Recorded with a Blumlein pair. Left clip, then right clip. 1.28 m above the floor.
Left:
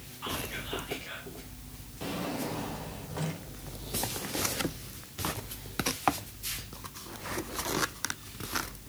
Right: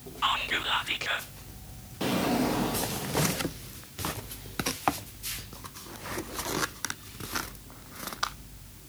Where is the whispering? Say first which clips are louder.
Right 10 dB; 55° right, 1.1 m.